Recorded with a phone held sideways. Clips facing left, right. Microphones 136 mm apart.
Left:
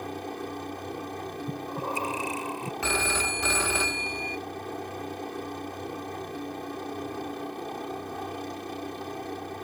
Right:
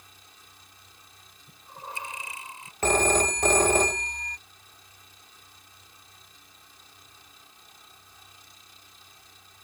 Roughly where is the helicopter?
Left.